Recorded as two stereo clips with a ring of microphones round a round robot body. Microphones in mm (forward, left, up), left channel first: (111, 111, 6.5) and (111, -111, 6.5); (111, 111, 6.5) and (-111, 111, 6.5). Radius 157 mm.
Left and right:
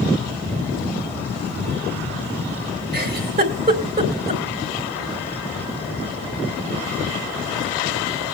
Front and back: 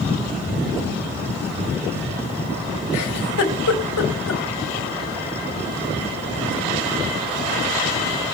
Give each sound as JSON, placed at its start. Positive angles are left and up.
{"t": 2.9, "sound": "a giggle", "azimuth_deg": -45, "distance_m": 3.5}